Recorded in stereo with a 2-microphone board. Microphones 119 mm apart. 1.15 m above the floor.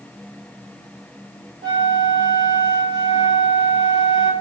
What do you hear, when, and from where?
1.6 s a flute: 55° right (ahead or behind), 3 m